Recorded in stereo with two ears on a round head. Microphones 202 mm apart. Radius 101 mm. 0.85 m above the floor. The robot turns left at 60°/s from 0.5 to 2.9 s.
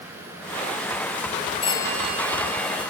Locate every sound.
1.6 s a phone ringing: 25° left, 5 m; by 2.9 s 50° right, 5 m